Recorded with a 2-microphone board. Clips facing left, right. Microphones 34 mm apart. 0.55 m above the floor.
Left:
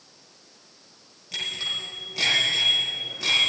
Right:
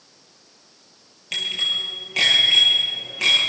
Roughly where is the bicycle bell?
Right.